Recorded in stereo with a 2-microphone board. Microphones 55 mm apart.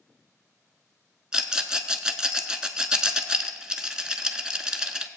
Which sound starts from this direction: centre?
A rattle, at 1.3 s.